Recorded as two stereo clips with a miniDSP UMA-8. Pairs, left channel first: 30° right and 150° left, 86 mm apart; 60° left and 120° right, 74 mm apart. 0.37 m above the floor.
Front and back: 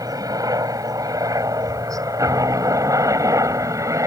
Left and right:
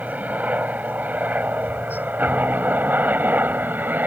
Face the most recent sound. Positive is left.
turn(degrees=-175)